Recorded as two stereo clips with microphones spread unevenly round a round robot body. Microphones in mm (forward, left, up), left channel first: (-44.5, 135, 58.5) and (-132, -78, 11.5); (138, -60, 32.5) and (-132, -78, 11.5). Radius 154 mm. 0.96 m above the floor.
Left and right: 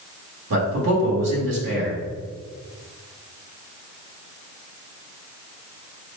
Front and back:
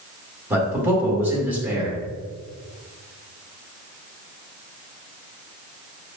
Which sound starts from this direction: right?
A man speaking, at 0.5 s.